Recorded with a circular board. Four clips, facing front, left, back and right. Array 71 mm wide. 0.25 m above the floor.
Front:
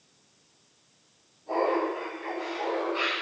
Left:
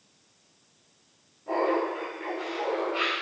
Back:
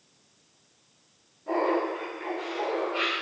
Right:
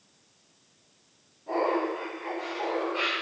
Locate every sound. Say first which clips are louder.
1.5 s laughter: left 1 dB, even; 160° left, 2.5 m; by 3.1 s 145° left, 4.5 m